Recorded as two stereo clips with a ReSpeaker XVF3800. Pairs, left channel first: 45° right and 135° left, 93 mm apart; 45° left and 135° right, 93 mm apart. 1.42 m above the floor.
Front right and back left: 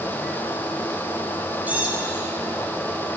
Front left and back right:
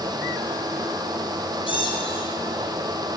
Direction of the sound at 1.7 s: 60° left.